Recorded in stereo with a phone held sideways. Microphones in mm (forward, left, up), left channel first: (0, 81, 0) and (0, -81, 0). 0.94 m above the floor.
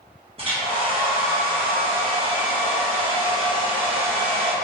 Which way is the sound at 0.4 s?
35° right (ahead or behind).